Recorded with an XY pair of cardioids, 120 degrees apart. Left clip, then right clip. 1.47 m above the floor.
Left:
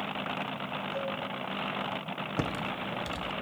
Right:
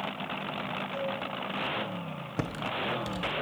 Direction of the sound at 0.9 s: 25° right.